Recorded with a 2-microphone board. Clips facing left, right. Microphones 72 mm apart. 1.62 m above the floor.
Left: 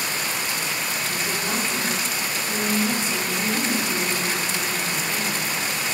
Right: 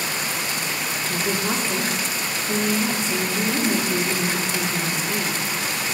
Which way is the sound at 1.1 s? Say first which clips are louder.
Right 6 dB; 35° right (ahead or behind).